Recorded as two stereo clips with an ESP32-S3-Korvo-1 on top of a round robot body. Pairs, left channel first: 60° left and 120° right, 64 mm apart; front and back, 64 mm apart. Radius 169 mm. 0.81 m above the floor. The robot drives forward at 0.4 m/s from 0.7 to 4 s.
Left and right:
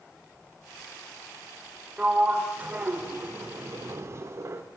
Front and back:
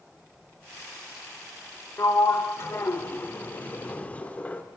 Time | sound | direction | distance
2.0 | a sliding door | 45° right | 2.0 m